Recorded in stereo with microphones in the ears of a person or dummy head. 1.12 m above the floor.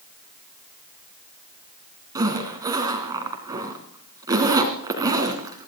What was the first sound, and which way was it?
A zipper, 15° right (ahead or behind).